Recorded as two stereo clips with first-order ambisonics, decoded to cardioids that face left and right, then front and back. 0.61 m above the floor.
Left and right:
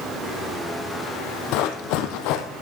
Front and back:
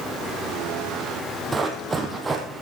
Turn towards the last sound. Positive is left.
turn(degrees=105)